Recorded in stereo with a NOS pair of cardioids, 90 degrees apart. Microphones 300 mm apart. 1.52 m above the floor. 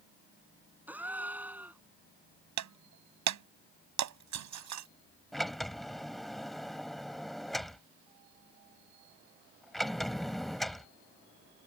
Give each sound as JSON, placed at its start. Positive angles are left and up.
{"t": 0.9, "sound": "a gasp", "azimuth_deg": -5}
{"t": 2.6, "sound": "breaking glass", "azimuth_deg": -65}
{"t": 5.3, "sound": "a sliding door", "azimuth_deg": 0}